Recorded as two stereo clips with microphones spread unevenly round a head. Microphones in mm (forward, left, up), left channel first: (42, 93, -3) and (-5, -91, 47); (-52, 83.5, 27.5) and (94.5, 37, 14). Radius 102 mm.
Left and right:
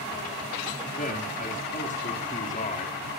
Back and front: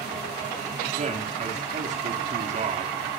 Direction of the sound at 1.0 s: 20° left.